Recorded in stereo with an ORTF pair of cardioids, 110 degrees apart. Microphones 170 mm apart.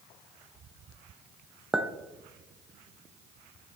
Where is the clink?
5° right, 0.6 m.